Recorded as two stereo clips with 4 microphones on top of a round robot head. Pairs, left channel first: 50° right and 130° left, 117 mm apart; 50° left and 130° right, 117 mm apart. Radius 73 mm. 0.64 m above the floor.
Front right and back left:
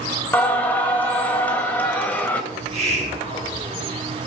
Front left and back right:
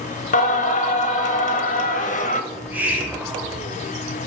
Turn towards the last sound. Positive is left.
turn(degrees=155)